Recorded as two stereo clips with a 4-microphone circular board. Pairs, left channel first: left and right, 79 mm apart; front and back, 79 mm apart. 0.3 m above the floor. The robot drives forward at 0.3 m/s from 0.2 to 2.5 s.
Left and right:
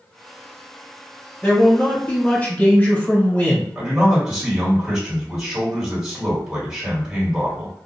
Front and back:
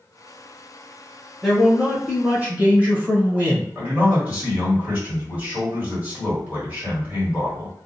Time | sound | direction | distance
1.4 | a man speaking | 95° left | 1.0 m
3.8 | a man speaking | 150° right | 1.5 m